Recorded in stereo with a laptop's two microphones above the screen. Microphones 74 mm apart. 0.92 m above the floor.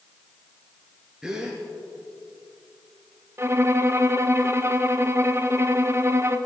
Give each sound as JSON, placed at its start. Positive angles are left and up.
{"t": 1.2, "sound": "a gasp", "side_deg": -5, "distance_m": 2.5}
{"t": 3.4, "sound": "a violin", "side_deg": -35, "distance_m": 0.8}